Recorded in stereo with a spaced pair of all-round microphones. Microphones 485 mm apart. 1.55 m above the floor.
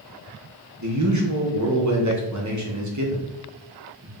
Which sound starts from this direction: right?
A man speaking, at 0.8 s.